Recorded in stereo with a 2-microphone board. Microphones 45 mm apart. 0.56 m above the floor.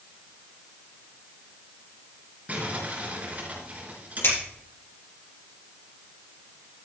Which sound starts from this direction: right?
Crumpling, at 2.5 s.